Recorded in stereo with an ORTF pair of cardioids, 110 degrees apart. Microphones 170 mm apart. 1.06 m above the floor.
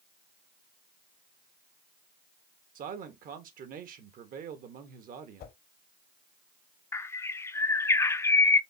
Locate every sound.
2.8 s a man speaking: 60° right, 1.3 m
5.4 s a whoosh: 70° left, 1.6 m
6.9 s a bird: 15° left, 0.5 m